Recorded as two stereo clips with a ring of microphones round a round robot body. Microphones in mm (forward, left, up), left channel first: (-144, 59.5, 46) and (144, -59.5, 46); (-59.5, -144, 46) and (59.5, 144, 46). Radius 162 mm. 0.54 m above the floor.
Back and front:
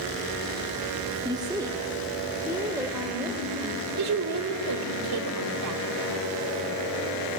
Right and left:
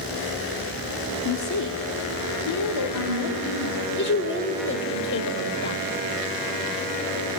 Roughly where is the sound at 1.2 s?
Right.